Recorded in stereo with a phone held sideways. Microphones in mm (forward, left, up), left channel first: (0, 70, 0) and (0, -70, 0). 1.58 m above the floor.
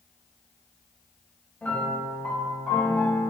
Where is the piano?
10° left (ahead or behind), 1.1 m.